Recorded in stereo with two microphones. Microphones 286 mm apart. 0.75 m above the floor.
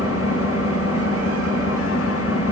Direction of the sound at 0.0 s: 55° left (ahead or behind).